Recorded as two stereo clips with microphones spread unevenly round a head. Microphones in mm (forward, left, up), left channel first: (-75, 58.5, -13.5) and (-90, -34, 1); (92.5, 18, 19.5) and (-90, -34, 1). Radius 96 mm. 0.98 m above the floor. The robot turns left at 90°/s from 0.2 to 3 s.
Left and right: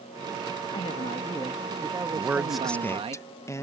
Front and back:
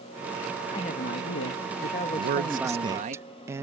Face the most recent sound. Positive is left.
turn(degrees=125)